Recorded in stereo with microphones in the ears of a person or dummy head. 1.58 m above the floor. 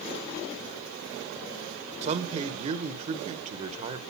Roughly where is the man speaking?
Right.